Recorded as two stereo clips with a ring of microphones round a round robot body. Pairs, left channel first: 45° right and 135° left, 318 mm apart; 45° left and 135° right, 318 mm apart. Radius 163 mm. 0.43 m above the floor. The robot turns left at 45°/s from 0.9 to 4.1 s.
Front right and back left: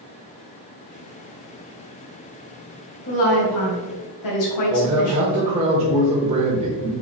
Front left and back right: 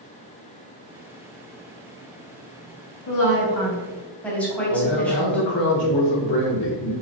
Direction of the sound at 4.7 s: 70° left.